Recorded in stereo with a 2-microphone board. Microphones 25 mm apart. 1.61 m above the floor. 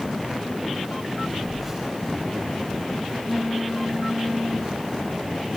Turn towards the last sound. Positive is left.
turn(degrees=-10)  # may be behind; listen again after turning